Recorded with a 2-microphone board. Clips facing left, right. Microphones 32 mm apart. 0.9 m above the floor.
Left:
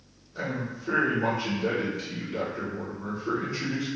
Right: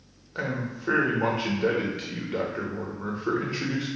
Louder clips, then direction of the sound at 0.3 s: Right 2 dB; 55° right (ahead or behind).